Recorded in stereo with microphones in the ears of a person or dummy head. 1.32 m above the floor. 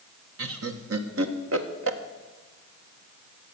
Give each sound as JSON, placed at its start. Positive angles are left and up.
{"t": 0.4, "sound": "laughter", "side_deg": -70, "distance_m": 1.3}